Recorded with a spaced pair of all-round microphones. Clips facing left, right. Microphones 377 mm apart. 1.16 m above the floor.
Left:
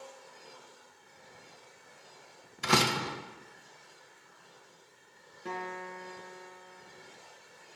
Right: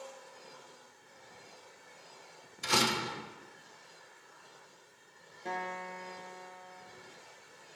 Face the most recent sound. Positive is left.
turn(degrees=20)  # may be behind; listen again after turning